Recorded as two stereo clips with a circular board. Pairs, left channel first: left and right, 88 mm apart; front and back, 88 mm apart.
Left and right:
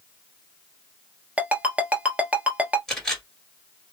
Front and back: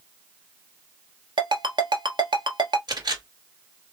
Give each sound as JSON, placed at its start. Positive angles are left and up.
{"t": 1.4, "sound": "a ringtone", "azimuth_deg": -165, "distance_m": 1.1}
{"t": 2.9, "sound": "a camera shutter", "azimuth_deg": 175, "distance_m": 2.0}